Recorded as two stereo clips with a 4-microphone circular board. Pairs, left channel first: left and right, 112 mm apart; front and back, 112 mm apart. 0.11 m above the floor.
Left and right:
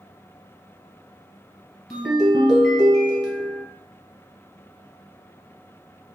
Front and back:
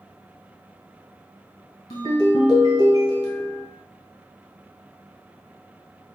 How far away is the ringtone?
About 1.2 m.